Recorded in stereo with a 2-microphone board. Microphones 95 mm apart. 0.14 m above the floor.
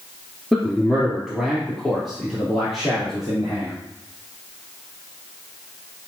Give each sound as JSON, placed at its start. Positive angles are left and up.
{"t": 0.5, "sound": "a man speaking", "side_deg": 0, "distance_m": 2.5}